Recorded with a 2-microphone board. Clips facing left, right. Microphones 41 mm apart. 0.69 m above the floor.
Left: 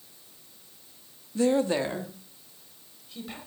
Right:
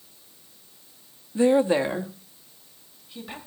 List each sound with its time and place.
1.4 s a woman speaking: 15° right (ahead or behind), 0.5 m; by 3.4 s 10° right (ahead or behind), 3 m